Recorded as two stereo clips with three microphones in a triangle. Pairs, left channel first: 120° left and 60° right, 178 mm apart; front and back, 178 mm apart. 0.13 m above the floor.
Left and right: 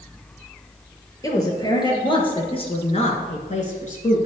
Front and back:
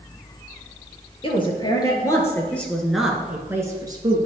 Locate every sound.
1.2 s a woman speaking: 55° left, 2 m; by 4.3 s 130° left, 1.8 m